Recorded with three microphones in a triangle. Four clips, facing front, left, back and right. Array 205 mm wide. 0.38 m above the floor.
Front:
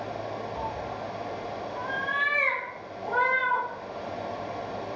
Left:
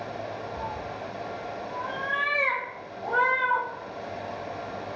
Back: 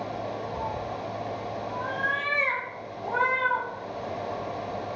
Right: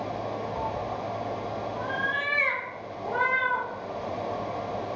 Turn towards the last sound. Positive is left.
turn(degrees=50)